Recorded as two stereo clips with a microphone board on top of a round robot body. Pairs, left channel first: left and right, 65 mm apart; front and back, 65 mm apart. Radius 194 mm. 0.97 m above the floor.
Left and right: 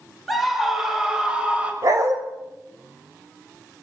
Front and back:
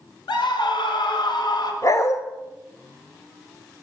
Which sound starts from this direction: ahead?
A scream, at 0.3 s.